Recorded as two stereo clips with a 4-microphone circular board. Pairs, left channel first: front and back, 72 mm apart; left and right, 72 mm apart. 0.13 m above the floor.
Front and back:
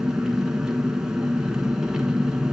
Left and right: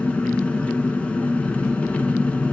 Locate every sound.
0.0 s an engine running: 120° left, 1.4 m